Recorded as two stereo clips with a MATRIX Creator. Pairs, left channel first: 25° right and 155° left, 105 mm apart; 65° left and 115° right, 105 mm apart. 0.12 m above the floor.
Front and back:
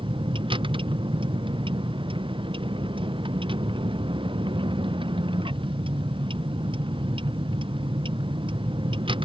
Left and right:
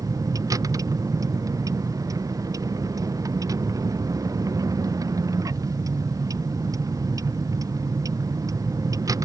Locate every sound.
0.0 s a vehicle: 170° right